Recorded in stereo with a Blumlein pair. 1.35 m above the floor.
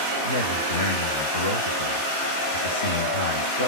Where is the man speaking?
65° left, 1.1 m.